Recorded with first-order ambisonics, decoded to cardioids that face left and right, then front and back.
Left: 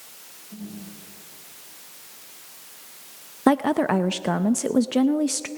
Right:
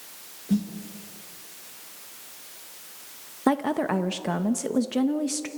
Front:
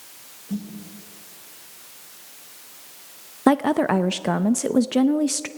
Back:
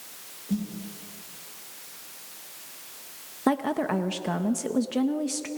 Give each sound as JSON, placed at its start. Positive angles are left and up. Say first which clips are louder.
{"t": 0.5, "sound": "a snare drum", "louder": "right 13 dB, back 1 dB", "azimuth_deg": -95, "distance_m": 7.5}
{"t": 3.5, "sound": "a woman speaking", "louder": "left 4 dB, front 7 dB", "azimuth_deg": 30, "distance_m": 0.5}